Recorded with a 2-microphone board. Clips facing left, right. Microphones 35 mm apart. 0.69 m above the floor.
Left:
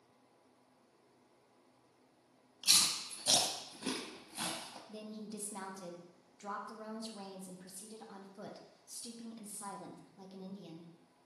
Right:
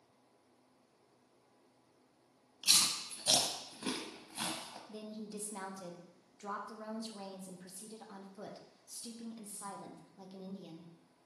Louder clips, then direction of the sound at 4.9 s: Right 1 dB; 5° right (ahead or behind).